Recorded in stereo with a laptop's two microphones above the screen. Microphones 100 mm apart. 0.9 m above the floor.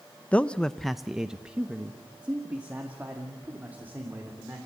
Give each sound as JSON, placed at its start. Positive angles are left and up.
{"t": 0.3, "sound": "a man speaking", "side_deg": 15, "distance_m": 0.7}